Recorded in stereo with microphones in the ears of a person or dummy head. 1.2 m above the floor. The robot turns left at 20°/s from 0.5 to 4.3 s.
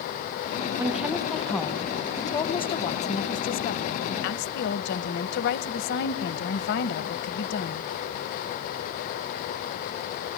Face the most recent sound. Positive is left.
turn(degrees=120)